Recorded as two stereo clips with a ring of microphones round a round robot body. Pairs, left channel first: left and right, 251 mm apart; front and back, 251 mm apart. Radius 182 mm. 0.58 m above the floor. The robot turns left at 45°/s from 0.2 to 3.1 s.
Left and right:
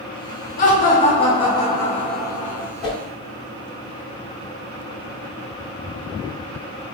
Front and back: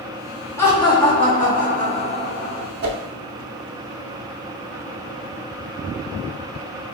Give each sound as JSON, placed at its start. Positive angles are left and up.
{"t": 0.6, "sound": "laughter", "azimuth_deg": 75, "distance_m": 1.4}
{"t": 2.8, "sound": "a whoosh", "azimuth_deg": 180, "distance_m": 0.7}